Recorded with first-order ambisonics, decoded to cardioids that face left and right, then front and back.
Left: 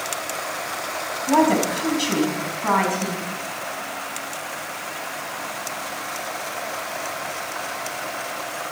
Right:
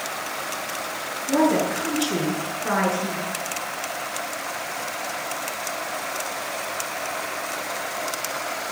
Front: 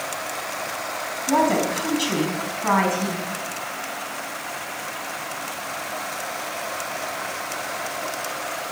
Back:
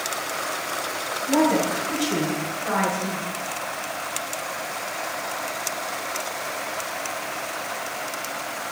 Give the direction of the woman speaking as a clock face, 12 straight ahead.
10 o'clock.